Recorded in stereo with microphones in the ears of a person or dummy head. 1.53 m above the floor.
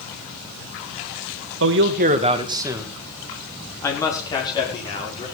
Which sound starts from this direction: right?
A man speaking, at 1.6 s.